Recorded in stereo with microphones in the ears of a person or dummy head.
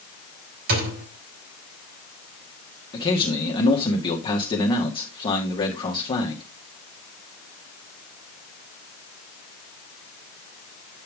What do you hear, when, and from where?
0.7 s a thud: 70° right (ahead or behind), 2.5 m
2.9 s a man speaking: 25° left (ahead or behind), 1.8 m